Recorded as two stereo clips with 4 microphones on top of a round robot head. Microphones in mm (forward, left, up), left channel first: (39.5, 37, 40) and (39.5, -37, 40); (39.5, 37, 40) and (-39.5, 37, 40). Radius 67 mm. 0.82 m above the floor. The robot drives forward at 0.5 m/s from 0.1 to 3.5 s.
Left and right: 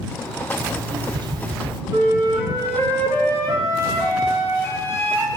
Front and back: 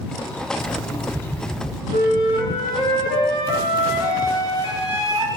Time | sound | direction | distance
0.6 | an alarm clock | 55° right | 1.1 m
1.9 | a flute | 150° right | 6.5 m